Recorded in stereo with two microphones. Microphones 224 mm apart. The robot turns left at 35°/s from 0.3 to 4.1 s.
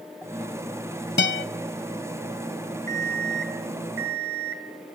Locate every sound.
1.2 s a guitar: 50° left (ahead or behind), 1.3 m; by 1.4 s 55° left (ahead or behind), 1.3 m
2.9 s an alarm clock: 35° right, 3 m; by 4.7 s 80° right, 3 m